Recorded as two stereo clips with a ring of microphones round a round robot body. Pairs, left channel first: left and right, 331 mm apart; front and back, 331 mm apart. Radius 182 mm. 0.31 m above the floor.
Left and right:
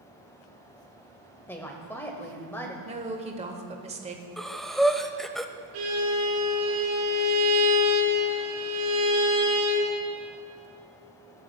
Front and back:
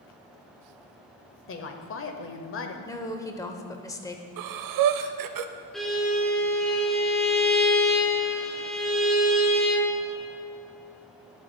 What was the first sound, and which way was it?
A woman speaking, 10° left.